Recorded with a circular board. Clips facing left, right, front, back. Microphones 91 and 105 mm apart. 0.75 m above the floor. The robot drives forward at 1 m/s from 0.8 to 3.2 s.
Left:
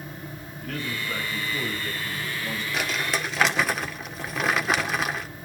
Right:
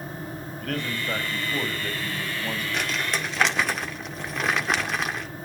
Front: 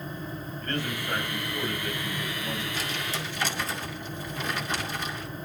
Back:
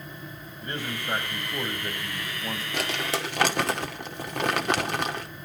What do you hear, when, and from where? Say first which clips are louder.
0.6 s a man speaking: right 2 dB, front 1 dB; 105° right, 4 m; by 2.6 s 130° right, 4.5 m
2.7 s crumpling: left 3 dB, back 4 dB; 175° left, 1.7 m